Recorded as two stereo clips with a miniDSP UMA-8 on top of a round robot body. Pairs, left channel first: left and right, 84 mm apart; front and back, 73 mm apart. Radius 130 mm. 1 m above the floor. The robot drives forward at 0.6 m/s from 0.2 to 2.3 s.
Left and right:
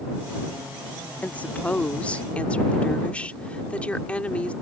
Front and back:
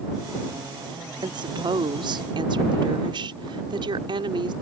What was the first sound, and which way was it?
A woman speaking, 165° left.